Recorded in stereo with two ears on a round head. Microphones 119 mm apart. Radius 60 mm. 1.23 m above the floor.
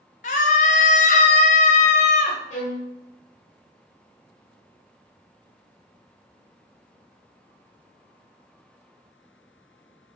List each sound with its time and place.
0.2 s a scream: 55° left (ahead or behind), 0.8 m
2.5 s a violin: 50° left (ahead or behind), 1.5 m